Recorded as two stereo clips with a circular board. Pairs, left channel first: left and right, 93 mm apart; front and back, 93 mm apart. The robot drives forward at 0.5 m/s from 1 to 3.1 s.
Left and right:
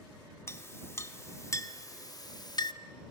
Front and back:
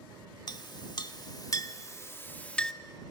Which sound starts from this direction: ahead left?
A clink, at 0.5 s.